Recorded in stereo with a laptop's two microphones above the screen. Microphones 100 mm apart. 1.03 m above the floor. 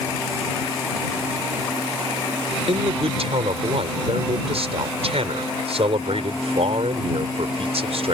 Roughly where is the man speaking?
Right.